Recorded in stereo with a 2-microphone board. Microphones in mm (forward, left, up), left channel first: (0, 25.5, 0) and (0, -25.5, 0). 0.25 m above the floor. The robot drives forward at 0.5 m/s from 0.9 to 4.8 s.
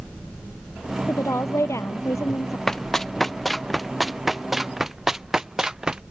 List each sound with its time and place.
1.1 s a woman speaking: 70° left (ahead or behind); by 2.6 s 75° left (ahead or behind)
2.7 s running footsteps: 10° left (ahead or behind); by 6.0 s 15° right (ahead or behind)